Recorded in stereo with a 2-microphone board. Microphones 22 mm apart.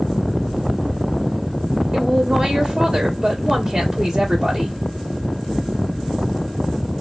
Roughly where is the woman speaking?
Right.